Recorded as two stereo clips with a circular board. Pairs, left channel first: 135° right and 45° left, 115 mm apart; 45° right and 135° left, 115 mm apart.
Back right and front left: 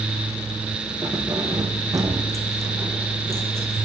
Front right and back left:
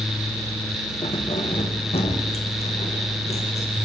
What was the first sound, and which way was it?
Keys jangling, 5° right.